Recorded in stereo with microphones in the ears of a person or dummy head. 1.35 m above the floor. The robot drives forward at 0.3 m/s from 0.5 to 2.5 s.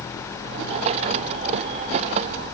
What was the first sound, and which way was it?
Only background noise.